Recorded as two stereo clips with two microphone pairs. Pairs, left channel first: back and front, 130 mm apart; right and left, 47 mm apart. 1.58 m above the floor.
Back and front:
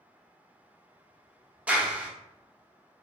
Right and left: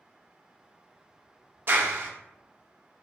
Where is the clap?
70° left, 0.7 m.